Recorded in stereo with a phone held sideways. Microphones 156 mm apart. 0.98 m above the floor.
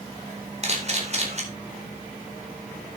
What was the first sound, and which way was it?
A camera shutter, 45° right (ahead or behind).